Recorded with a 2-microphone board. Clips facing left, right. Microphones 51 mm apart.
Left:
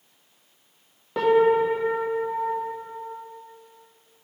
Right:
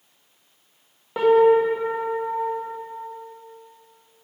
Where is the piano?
10° right (ahead or behind), 1.2 m.